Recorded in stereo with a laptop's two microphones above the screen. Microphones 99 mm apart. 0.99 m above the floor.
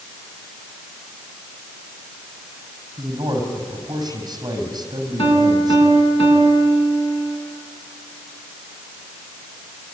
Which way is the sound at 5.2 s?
90° left.